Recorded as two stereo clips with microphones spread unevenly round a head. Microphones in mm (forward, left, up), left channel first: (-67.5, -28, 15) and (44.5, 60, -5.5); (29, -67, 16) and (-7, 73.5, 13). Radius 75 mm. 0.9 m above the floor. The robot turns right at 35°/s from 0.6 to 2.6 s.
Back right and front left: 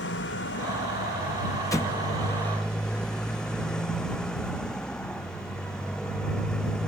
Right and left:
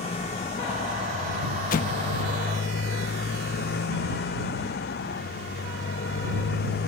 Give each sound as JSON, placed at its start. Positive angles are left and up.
{"t": 0.0, "sound": "a motorcycle", "azimuth_deg": -125}
{"t": 1.7, "sound": "an explosion", "azimuth_deg": -70}